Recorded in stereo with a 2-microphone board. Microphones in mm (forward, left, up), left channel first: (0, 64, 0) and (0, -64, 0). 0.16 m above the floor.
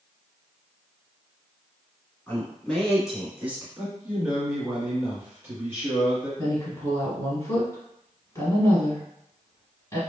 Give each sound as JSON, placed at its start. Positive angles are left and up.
{"t": 2.3, "sound": "a man speaking", "side_deg": 15, "distance_m": 1.6}
{"t": 3.8, "sound": "a man speaking", "side_deg": -25, "distance_m": 1.6}
{"t": 6.4, "sound": "a woman speaking", "side_deg": 25, "distance_m": 1.5}